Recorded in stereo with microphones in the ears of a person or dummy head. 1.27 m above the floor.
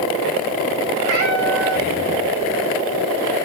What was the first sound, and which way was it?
A cat meowing, 50° right (ahead or behind).